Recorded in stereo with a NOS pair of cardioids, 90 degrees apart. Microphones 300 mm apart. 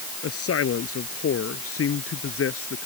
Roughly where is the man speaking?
Ahead left.